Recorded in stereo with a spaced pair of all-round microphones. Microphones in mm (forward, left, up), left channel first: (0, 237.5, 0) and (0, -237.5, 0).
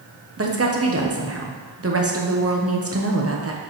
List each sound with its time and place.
0.4 s a woman speaking: 30° right (ahead or behind), 0.9 m